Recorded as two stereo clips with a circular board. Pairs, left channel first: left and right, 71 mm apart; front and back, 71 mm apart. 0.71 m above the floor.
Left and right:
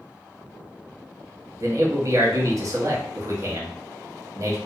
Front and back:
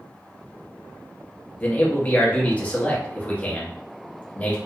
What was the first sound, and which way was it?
A man speaking, 65° right.